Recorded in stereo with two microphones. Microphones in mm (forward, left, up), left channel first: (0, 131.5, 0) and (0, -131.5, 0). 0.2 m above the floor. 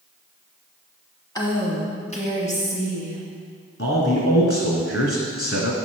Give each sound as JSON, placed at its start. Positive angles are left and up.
{"t": 1.4, "sound": "a woman speaking", "side_deg": 15, "distance_m": 1.1}
{"t": 3.8, "sound": "a man speaking", "side_deg": 55, "distance_m": 2.0}